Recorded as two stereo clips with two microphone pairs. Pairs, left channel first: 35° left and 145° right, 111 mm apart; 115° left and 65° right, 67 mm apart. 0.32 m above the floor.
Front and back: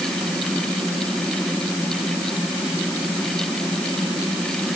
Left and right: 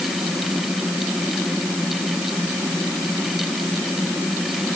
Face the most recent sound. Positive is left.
No sound to turn to.